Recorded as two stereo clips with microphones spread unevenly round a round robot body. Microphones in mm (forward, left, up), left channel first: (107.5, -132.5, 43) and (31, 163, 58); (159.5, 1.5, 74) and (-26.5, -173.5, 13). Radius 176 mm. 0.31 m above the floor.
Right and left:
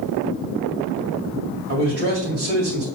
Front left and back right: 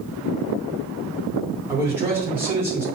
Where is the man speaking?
155° left, 1.8 m.